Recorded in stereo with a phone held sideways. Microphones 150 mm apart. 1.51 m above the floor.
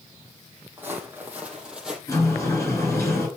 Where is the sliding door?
20° left (ahead or behind), 5 m.